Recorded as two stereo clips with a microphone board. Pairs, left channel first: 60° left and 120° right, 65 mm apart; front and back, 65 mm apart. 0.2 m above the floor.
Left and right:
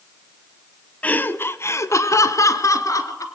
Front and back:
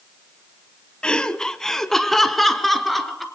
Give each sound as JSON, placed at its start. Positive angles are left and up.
{"t": 1.0, "sound": "laughter", "azimuth_deg": 50, "distance_m": 1.0}